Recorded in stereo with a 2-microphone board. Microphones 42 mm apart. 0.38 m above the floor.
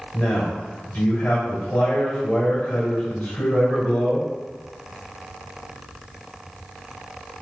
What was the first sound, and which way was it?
A man speaking, 45° left (ahead or behind).